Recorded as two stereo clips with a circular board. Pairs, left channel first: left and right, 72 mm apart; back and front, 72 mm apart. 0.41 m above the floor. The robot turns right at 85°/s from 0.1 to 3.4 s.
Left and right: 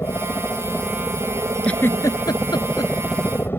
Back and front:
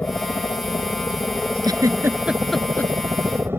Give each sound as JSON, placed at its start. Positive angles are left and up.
{"t": 0.0, "sound": "a helicopter", "azimuth_deg": 125}
{"t": 1.6, "sound": "a giggle", "azimuth_deg": 15}